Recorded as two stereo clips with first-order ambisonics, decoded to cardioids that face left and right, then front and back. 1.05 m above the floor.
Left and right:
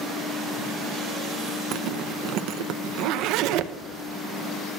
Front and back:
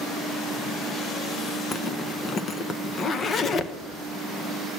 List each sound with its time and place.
1.7 s a zipper: 60° right, 0.7 m